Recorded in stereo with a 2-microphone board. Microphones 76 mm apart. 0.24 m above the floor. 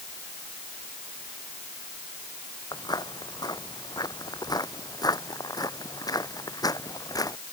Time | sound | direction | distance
2.7 | footsteps | 75° left (ahead or behind) | ?